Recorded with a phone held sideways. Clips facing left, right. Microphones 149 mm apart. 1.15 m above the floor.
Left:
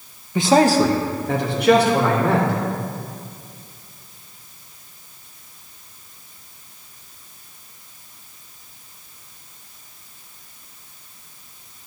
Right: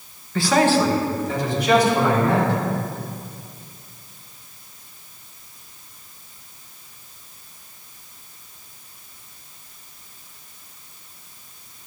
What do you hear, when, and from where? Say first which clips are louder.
0.3 s a man speaking: left 3 dB; 15° left (ahead or behind), 0.7 m; by 2.5 s 70° left (ahead or behind), 3 m